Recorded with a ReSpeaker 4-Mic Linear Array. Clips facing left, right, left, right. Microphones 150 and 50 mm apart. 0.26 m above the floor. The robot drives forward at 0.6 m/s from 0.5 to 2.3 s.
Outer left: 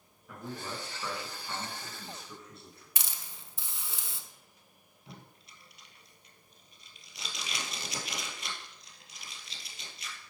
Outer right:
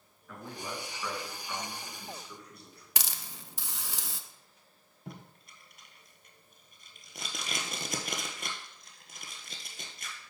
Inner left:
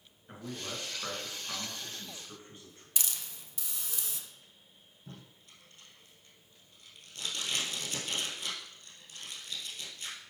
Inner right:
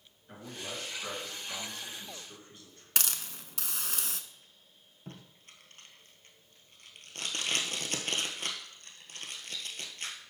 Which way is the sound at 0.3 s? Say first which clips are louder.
Outer left 1 dB, inner left 1 dB; 20° left (ahead or behind).